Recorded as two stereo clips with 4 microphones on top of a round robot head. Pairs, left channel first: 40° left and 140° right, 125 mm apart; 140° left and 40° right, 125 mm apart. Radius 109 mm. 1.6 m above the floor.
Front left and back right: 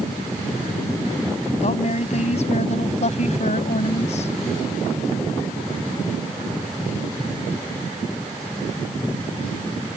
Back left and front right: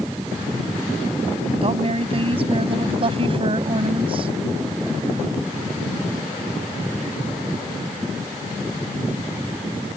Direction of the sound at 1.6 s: 5° left.